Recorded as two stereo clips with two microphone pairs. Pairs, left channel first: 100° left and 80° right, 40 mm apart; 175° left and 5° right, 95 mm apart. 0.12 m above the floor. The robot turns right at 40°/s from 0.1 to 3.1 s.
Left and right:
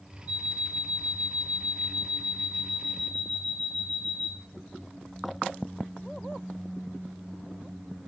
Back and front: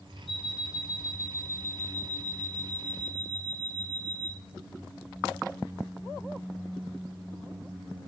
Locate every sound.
0.3 s an alarm clock: 95° right, 0.8 m; by 4.3 s 15° left, 0.8 m